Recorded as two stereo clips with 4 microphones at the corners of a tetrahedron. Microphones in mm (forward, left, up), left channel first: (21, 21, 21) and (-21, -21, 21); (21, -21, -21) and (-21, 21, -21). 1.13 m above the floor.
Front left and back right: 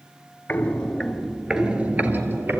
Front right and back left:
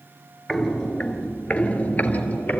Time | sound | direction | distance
0.5 | footsteps | 35° left | 1.2 m